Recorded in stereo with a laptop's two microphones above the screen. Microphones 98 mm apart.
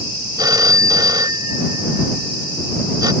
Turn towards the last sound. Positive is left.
turn(degrees=-45)  # may be behind; listen again after turning